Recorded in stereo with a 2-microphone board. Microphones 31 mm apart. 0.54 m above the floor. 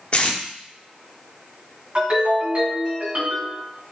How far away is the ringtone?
About 2.5 m.